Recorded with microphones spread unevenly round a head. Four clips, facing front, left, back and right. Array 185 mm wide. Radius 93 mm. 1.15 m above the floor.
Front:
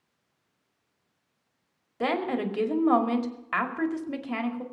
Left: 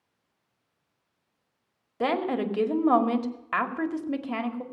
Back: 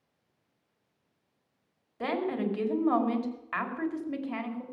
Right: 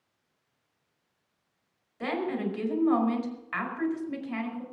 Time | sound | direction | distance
2.0 | a woman speaking | 55° left | 2 m